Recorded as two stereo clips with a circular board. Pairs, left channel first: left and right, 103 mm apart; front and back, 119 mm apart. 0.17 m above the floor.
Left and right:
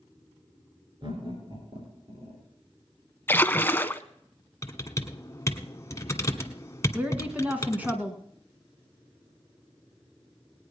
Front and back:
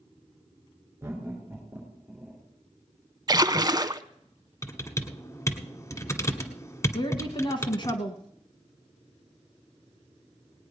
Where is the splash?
145° left, 0.6 m.